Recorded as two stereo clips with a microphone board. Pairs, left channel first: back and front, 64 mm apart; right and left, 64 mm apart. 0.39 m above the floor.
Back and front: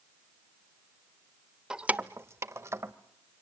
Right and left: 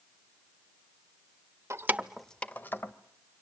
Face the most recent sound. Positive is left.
turn(degrees=-40)